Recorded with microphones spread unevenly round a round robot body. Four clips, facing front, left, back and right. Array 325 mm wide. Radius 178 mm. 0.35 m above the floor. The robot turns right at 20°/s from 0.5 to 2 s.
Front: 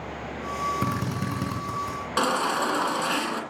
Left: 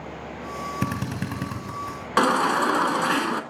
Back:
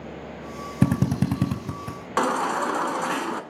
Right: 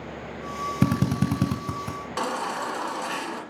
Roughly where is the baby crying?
Left.